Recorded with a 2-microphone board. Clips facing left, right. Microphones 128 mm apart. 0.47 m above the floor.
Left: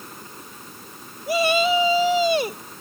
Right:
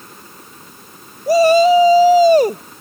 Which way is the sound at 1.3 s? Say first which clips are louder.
Right 10 dB; 40° right (ahead or behind).